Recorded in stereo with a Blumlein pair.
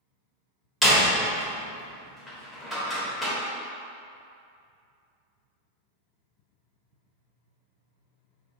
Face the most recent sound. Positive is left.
turn(degrees=5)